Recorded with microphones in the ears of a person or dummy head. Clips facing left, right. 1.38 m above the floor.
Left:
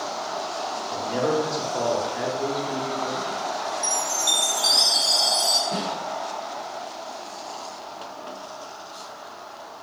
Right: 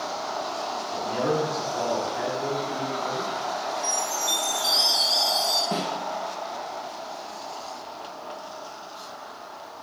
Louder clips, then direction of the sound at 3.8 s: Even; 60° left (ahead or behind).